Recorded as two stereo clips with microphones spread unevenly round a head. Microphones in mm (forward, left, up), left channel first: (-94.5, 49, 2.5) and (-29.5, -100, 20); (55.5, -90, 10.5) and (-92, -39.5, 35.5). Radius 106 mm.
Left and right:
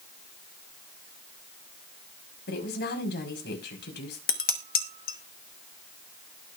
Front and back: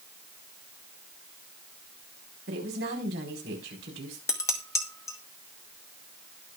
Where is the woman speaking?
125° left, 4.5 m.